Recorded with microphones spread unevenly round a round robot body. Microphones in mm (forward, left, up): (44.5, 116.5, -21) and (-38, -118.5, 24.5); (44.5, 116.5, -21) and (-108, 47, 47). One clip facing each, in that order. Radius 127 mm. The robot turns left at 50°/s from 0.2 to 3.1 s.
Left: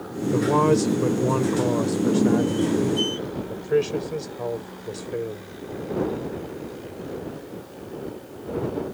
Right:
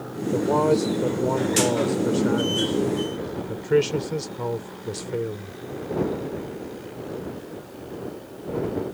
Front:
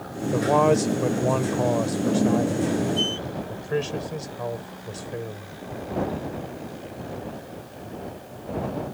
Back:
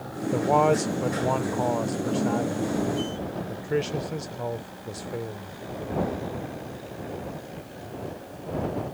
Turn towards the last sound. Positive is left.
turn(degrees=-50)